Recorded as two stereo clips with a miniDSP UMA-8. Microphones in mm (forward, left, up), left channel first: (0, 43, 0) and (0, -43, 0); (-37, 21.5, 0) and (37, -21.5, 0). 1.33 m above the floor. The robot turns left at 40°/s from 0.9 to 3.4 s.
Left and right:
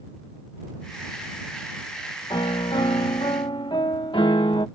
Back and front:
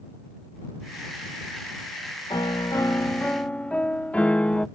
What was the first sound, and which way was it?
A piano, 120° left.